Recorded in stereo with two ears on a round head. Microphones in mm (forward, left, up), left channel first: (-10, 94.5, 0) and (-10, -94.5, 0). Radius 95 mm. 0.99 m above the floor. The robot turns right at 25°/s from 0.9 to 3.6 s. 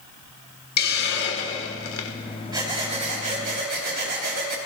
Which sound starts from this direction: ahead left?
A hiss, at 0.8 s.